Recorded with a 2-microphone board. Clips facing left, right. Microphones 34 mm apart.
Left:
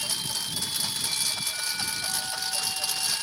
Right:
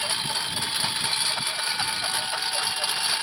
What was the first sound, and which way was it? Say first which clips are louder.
A lawn mower: right 4 dB; 35° right (ahead or behind).